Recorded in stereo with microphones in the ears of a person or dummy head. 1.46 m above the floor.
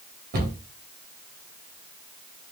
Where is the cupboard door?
55° right (ahead or behind), 1.2 m.